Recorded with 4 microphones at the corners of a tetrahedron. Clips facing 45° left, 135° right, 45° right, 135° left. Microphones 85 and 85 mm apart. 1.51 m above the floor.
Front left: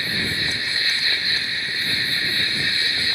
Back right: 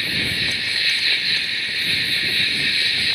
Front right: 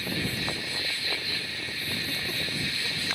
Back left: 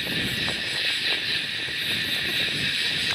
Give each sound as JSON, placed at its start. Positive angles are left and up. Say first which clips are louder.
{"t": 0.0, "sound": "an insect", "louder": "even, back left 2 dB", "azimuth_deg": 110}